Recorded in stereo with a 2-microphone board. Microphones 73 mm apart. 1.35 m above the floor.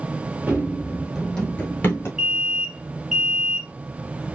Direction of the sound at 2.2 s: 10° right (ahead or behind).